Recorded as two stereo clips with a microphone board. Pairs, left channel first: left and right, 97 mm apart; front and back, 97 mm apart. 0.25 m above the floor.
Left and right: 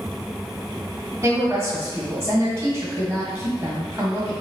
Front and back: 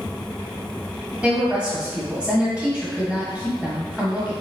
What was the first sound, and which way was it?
A woman speaking, 115° right.